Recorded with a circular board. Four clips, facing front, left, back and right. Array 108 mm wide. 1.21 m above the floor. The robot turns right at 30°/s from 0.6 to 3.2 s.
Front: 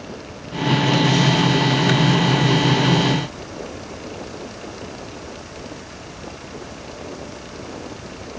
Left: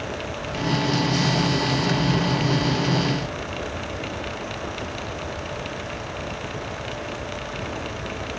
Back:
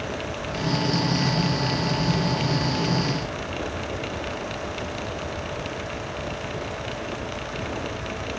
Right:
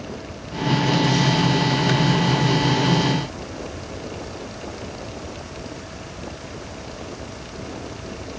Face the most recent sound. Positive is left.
No sound to turn to.